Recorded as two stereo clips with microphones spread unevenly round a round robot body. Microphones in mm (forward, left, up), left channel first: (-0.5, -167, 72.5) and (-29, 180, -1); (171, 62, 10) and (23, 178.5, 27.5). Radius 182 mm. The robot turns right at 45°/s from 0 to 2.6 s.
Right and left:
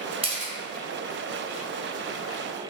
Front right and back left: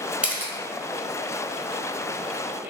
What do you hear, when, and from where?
0.2 s a camera shutter: 50° left, 1.1 m; by 0.5 s 65° left, 1.1 m